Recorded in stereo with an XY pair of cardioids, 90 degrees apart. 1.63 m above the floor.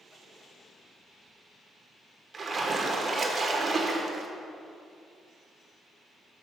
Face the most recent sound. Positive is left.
turn(degrees=-40)